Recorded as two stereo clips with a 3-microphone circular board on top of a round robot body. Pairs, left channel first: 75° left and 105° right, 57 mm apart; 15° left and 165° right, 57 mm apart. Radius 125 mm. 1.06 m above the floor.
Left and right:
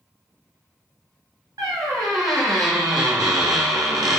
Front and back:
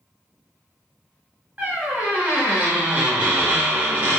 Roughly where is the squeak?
Right.